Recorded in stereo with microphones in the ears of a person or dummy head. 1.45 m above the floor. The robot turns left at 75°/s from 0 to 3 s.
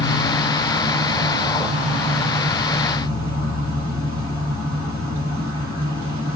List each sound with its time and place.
0.0 s an insect: 65° left, 2.0 m; by 6.4 s 160° right, 2.0 m